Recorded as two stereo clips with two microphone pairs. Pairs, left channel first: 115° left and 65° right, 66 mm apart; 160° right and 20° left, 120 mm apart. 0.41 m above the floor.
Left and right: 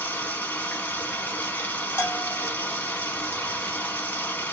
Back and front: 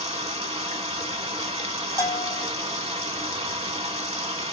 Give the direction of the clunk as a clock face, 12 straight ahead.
No clunk in this recording.